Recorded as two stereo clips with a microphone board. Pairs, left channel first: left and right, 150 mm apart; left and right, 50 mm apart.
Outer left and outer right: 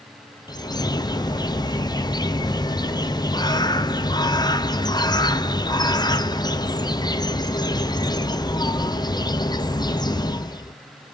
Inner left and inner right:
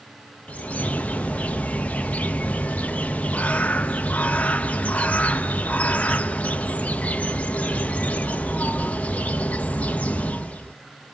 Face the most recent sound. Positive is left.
turn(degrees=25)  # may be behind; listen again after turning